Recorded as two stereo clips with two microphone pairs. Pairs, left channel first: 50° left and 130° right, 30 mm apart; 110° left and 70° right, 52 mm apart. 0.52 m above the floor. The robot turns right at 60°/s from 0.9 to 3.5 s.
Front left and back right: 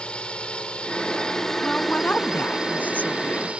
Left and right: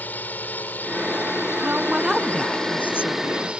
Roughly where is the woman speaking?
Ahead.